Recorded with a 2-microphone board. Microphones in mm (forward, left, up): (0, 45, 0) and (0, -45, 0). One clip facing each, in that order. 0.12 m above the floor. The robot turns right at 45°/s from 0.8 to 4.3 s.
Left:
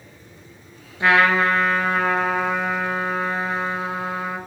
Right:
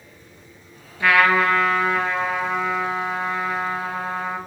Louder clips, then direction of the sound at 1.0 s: Even; 25° left.